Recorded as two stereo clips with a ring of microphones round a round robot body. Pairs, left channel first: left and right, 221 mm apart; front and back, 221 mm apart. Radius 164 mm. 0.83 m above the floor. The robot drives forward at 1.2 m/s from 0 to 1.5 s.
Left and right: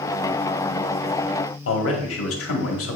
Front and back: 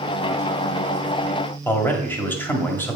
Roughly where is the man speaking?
Left.